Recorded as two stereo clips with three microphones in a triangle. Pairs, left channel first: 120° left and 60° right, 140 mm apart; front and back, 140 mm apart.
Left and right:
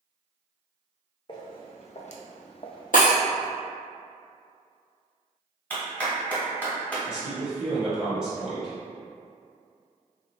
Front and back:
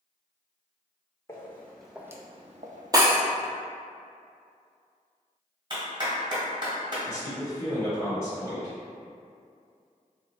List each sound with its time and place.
1.3 s footsteps: 70° left, 0.9 m; by 3.5 s 160° right, 1.0 m
2.9 s breaking glass: 115° left, 0.9 m
5.7 s a clap: 170° right, 1.4 m
7.0 s a man speaking: 20° left, 0.9 m